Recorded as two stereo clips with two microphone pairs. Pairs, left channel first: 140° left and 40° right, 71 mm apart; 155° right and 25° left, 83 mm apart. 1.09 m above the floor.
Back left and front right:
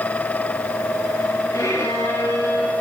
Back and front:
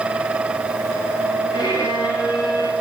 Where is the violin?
Straight behind, 3.5 m.